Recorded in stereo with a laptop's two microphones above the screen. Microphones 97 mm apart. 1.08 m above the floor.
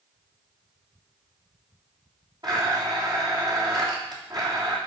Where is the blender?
50° right (ahead or behind), 3 m.